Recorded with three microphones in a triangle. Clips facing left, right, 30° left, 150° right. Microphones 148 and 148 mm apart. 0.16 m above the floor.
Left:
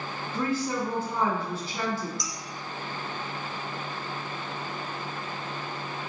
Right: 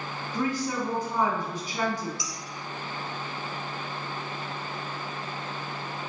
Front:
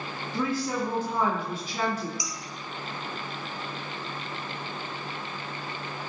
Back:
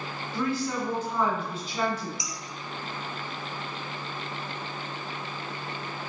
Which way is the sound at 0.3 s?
35° right.